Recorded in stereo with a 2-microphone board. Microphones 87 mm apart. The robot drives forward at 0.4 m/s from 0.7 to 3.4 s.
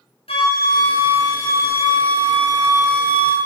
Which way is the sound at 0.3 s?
80° left.